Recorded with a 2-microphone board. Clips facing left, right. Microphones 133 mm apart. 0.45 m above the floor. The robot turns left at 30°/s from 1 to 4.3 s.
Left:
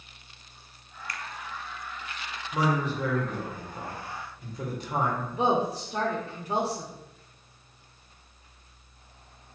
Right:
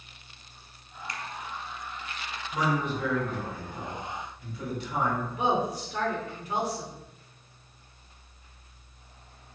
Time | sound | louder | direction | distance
1.1 | a finger snap | right 1 dB | 25° right (ahead or behind) | 0.5 m
2.5 | a man speaking | left 1 dB | 135° left | 1.4 m
5.3 | a woman speaking | left 5 dB | 30° left (ahead or behind) | 0.9 m